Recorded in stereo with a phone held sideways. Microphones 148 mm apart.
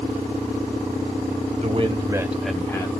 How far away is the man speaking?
About 0.9 m.